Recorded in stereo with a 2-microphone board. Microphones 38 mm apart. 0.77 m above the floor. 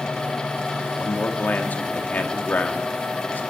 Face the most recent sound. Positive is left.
turn(degrees=55)  # may be behind; listen again after turning